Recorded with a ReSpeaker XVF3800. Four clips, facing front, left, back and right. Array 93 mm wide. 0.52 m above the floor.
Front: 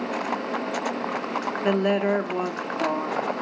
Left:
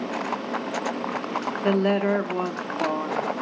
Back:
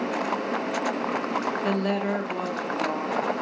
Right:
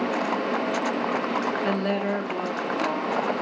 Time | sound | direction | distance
1.6 | a woman speaking | 35° left | 0.6 m